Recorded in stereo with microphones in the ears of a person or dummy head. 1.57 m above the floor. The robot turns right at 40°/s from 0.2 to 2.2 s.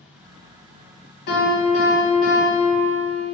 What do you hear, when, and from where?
1.3 s a piano: 100° left, 1.2 m; by 3.2 s 140° left, 1.2 m